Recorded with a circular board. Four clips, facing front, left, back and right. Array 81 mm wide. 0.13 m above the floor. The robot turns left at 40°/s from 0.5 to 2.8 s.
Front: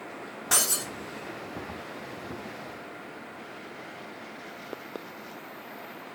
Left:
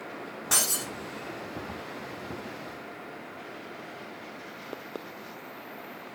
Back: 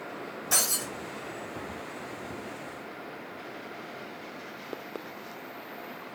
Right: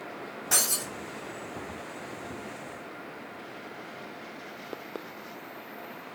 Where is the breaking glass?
40° left, 4 m; by 0.9 s 25° left, 4 m.